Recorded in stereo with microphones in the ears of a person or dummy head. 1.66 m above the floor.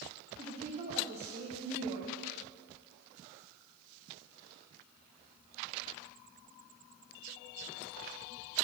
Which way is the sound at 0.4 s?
35° right (ahead or behind).